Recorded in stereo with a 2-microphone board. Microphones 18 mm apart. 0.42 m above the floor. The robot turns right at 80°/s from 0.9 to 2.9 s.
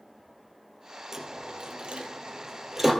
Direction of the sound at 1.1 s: 25° right (ahead or behind).